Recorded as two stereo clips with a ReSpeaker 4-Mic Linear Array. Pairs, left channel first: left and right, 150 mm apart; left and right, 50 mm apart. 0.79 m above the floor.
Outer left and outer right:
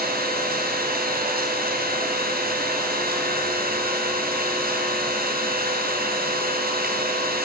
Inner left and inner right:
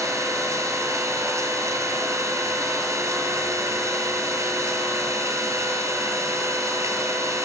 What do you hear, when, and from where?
0.0 s an engine running: 90° right, 9 m